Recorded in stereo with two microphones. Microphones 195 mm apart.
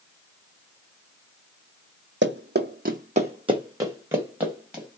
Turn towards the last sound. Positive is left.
turn(degrees=0)  # may be behind; listen again after turning